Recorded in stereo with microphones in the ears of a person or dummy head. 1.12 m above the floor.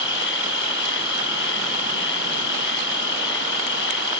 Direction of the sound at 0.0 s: 75° left (ahead or behind).